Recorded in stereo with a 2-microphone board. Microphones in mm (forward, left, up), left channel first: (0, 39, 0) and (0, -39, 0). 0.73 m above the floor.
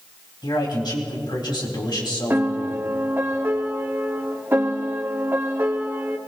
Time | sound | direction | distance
0.4 | a man speaking | 70° left (ahead or behind) | 4 m
2.3 | a piano | 30° right (ahead or behind) | 1.2 m